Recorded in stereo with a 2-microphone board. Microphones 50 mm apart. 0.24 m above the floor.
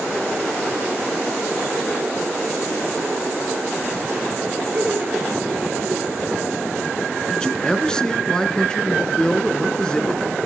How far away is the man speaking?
About 3 m.